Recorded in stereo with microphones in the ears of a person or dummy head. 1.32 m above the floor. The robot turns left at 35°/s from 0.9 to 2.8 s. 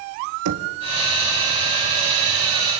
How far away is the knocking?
About 1.8 m.